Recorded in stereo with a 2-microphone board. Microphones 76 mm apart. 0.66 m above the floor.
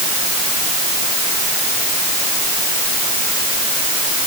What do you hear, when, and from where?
Only background noise.